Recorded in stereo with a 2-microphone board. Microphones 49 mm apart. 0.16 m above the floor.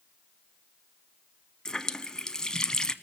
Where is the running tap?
15° left (ahead or behind), 0.7 m.